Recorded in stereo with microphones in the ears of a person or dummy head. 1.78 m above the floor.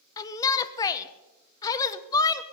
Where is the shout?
20° left (ahead or behind), 1.2 m.